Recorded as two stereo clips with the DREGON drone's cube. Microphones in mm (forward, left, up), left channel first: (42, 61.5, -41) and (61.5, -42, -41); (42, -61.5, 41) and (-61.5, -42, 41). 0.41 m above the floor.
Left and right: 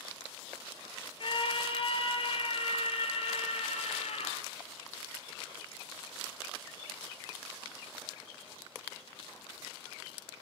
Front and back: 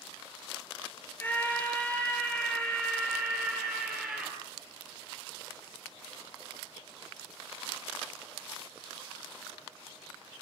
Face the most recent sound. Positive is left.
turn(degrees=80)